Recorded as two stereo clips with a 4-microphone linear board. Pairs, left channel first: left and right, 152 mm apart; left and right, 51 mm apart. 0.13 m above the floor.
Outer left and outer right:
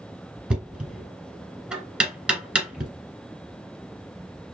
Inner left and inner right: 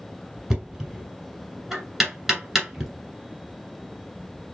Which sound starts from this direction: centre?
Knocking, at 0.5 s.